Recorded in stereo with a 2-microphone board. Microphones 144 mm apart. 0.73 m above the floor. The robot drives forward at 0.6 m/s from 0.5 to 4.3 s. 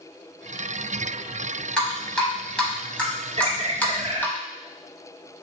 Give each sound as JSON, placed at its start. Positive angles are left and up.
{"t": 1.8, "sound": "dripping", "side_deg": 5, "distance_m": 1.9}
{"t": 3.4, "sound": "a bird", "side_deg": -45, "distance_m": 0.5}